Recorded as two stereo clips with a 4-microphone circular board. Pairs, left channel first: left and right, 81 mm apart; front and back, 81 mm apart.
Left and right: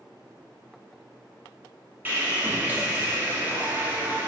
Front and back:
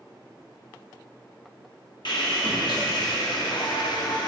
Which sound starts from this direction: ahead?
Sawing, at 2.0 s.